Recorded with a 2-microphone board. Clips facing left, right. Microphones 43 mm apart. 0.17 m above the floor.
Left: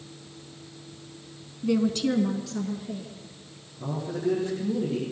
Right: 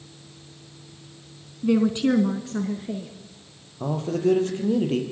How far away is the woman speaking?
About 1.5 m.